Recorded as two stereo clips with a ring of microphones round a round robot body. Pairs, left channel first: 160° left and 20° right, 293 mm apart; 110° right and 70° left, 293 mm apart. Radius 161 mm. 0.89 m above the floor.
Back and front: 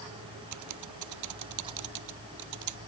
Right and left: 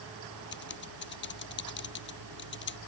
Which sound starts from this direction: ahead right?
Typing on a keyboard, at 0.5 s.